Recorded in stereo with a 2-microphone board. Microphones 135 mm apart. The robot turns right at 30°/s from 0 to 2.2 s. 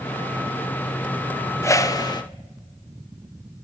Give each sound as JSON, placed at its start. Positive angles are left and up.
{"t": 1.6, "sound": "a whoosh", "side_deg": 20, "distance_m": 0.7}